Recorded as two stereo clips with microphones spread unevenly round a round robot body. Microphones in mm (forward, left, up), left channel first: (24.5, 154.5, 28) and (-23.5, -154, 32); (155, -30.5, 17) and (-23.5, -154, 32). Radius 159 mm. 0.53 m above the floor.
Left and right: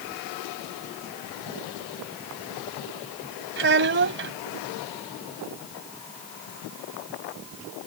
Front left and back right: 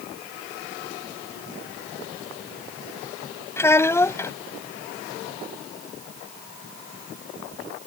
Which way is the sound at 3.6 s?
45° right.